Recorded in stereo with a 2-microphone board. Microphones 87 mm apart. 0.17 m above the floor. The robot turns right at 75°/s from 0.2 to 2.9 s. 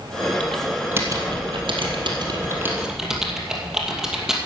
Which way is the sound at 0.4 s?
15° left (ahead or behind).